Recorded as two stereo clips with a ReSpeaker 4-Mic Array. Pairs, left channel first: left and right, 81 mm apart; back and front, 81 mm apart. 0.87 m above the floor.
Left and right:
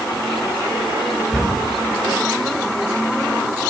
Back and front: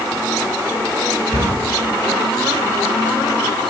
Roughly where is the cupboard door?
Behind.